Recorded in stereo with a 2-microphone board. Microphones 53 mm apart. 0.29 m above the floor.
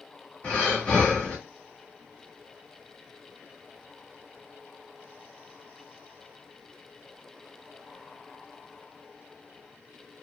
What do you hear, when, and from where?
0.4 s breathing: 25° left (ahead or behind), 1.1 m